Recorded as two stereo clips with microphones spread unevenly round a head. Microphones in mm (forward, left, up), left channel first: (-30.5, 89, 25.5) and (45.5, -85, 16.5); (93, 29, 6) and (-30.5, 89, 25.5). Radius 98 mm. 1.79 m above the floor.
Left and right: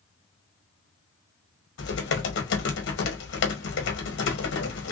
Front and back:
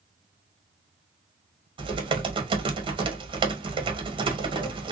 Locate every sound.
1.8 s typing on a keyboard: 115° left, 1.1 m